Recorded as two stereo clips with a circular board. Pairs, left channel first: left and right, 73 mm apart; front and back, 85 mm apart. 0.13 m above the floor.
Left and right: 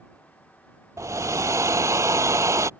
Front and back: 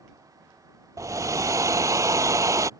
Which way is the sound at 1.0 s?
130° right.